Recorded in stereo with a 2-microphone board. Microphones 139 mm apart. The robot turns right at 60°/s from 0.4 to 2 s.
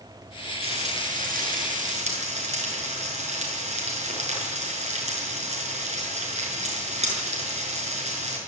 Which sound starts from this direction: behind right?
Frying, at 0.6 s.